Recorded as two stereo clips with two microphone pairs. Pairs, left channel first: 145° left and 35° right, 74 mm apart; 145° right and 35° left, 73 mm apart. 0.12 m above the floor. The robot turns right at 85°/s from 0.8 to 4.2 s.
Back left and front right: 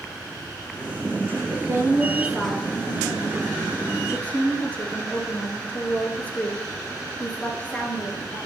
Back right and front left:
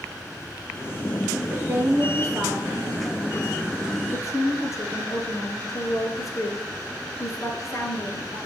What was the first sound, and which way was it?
A woman speaking, 25° right.